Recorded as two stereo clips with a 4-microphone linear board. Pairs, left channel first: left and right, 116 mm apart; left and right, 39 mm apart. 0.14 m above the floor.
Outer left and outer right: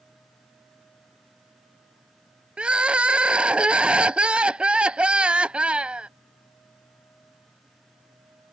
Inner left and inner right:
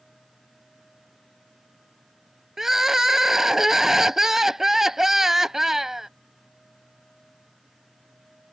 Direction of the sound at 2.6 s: 10° right (ahead or behind).